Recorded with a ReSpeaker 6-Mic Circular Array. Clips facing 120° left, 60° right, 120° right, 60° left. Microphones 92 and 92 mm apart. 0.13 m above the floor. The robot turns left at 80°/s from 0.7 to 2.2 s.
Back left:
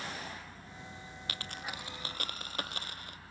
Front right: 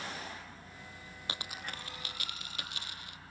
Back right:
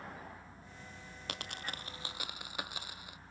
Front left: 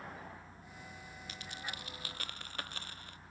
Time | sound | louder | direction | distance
1.3 | a dropped coin | even, back right 3 dB | 125° right | 0.5 m